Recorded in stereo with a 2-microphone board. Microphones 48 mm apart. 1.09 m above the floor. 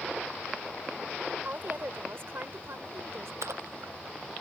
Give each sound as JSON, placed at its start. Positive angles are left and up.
{"t": 1.4, "sound": "a woman speaking", "side_deg": -45}
{"t": 3.4, "sound": "a splash", "side_deg": -80}